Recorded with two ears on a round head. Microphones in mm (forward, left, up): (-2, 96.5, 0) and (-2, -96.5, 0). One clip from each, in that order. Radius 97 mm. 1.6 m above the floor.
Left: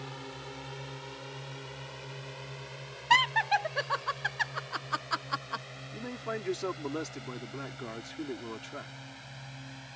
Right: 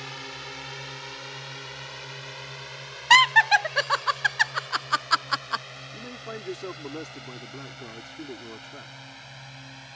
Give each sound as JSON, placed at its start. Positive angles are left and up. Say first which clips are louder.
{"t": 0.0, "sound": "a drone", "louder": "right 6 dB", "side_deg": -60}
{"t": 3.1, "sound": "laughter", "louder": "right 8 dB", "side_deg": -50}
{"t": 5.9, "sound": "a man speaking", "louder": "left 3 dB", "side_deg": 20}